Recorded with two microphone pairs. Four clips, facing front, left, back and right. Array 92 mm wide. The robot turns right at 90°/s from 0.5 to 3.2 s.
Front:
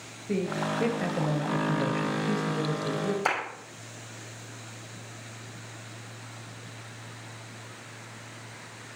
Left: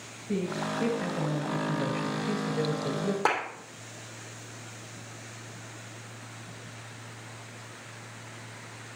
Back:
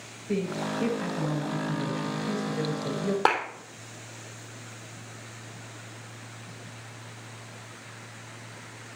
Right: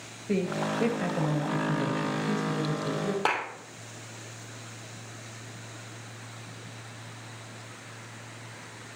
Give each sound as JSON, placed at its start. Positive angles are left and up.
{"t": 0.3, "sound": "a man speaking", "azimuth_deg": -80, "distance_m": 2.5}
{"t": 3.2, "sound": "a clap", "azimuth_deg": 180, "distance_m": 3.5}